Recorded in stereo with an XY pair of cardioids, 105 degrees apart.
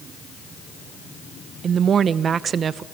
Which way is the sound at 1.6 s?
50° right.